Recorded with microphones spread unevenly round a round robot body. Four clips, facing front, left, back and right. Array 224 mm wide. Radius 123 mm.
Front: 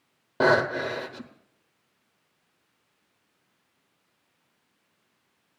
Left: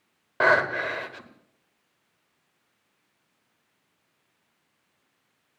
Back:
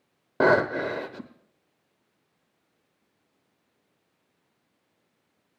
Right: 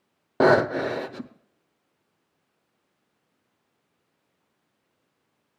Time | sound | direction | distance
0.4 | breathing | 115° right | 0.7 m